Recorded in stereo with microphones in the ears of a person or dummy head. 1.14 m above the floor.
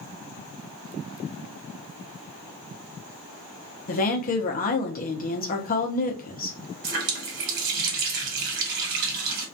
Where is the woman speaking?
50° left (ahead or behind), 0.6 m.